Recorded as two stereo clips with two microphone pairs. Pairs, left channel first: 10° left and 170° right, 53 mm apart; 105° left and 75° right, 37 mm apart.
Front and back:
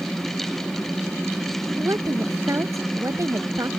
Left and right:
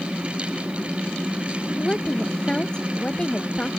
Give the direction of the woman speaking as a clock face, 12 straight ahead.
6 o'clock.